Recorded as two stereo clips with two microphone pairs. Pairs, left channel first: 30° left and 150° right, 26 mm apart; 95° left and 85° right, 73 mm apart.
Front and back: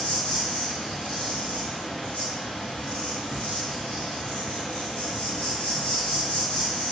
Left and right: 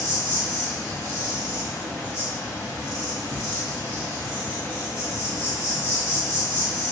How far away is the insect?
About 1.0 m.